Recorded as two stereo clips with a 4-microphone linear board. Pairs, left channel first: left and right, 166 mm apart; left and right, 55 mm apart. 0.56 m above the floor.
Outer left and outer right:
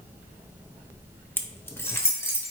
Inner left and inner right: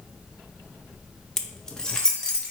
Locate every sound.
1.4 s keys jangling: 10° left (ahead or behind), 0.7 m; by 2.5 s 15° left (ahead or behind), 2.0 m